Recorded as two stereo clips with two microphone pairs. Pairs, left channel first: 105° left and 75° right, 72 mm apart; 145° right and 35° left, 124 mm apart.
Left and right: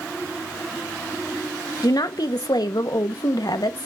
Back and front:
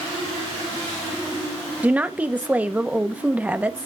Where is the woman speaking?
110° left, 1.1 m.